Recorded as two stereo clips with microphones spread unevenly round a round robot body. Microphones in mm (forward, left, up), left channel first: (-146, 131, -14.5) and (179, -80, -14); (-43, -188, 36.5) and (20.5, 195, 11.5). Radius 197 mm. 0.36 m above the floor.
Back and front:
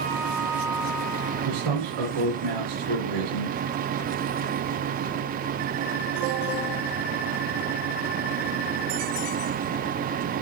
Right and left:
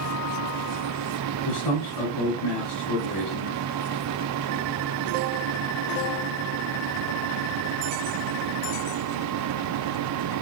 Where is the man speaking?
65° right, 3.5 m.